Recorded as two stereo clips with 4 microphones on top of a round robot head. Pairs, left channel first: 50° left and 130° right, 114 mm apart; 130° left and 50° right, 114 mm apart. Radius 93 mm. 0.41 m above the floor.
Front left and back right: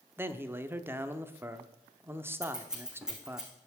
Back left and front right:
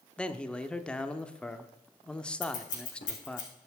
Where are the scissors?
145° left, 4 m.